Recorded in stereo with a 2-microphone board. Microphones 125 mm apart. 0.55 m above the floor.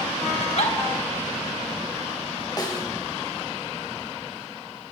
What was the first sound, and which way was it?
A giggle, 60° left (ahead or behind).